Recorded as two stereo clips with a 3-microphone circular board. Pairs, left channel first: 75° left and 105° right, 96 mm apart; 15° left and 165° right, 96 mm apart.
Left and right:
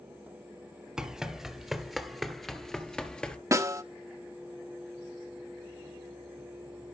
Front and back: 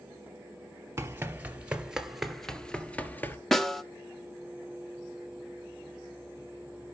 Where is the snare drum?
70° right, 1.2 m.